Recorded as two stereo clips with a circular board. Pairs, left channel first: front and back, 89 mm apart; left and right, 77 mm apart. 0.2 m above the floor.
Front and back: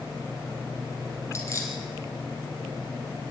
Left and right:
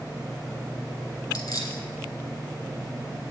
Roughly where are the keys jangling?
Ahead left.